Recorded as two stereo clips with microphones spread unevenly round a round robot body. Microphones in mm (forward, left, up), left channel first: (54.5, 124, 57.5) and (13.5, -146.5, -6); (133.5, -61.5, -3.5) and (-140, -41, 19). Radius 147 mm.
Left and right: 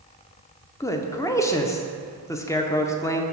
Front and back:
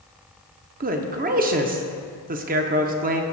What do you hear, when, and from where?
0.8 s a man speaking: straight behind, 0.7 m